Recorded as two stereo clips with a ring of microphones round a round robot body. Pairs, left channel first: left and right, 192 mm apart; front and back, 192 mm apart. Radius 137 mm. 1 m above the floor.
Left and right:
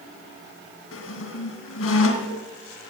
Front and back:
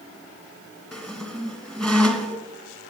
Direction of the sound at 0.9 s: 90° left.